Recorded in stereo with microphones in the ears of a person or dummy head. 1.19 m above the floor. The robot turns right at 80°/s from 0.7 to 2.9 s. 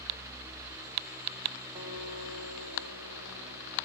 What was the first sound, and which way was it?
A guitar, 155° right.